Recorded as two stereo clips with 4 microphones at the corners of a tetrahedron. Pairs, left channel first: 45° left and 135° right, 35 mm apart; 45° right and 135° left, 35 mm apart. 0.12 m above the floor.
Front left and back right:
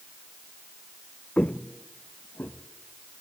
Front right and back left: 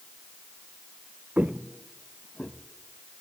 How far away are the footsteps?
About 0.5 m.